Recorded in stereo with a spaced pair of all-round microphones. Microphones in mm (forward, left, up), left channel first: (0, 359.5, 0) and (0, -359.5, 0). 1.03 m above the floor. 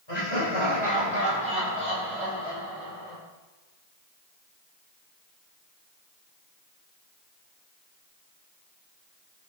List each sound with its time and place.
0.1 s laughter: 35° left (ahead or behind), 6 m; by 3.2 s 50° left (ahead or behind), 6.5 m